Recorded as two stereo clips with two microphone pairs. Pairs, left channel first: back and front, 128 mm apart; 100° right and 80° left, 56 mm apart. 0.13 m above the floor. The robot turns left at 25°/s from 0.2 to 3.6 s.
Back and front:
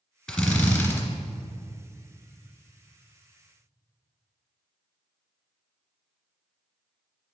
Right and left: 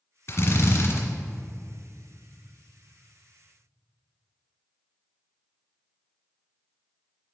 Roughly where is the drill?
Right.